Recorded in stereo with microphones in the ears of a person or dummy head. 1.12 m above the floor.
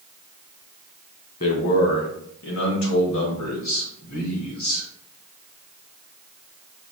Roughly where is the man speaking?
Left.